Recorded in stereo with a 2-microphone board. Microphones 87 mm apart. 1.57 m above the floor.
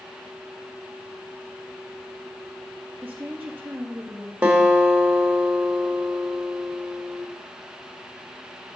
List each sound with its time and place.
3.0 s a woman speaking: 15° right (ahead or behind), 0.9 m
4.4 s a guitar: 15° right (ahead or behind), 1.4 m